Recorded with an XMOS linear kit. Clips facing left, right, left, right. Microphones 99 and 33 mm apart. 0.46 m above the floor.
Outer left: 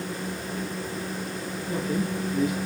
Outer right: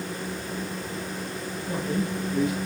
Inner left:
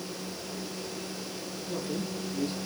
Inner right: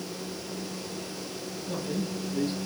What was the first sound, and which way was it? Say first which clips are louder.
A man speaking: even, inner right 2 dB; 25° right (ahead or behind).